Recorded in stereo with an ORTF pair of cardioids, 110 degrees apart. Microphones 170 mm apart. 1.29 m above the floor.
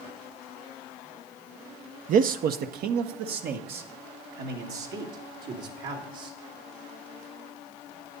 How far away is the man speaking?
About 0.5 m.